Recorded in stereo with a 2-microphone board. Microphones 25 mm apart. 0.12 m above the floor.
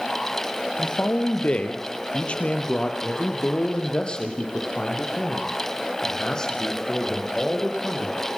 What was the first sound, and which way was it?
A man speaking, 55° left (ahead or behind).